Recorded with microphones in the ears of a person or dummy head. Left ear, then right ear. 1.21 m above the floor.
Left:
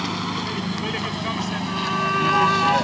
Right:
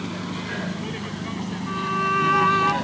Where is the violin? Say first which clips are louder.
Right 1 dB; 5° right (ahead or behind).